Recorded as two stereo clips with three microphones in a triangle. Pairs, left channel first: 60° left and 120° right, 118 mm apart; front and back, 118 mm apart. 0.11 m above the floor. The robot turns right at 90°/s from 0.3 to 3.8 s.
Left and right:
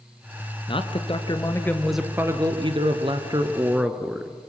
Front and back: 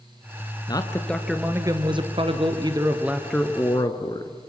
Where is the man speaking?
40° left, 1.6 m; by 4.3 s 40° right, 1.6 m.